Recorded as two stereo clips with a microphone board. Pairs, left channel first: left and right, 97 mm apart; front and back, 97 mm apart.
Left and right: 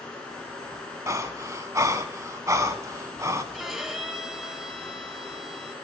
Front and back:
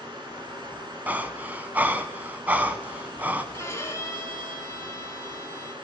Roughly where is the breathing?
Behind right.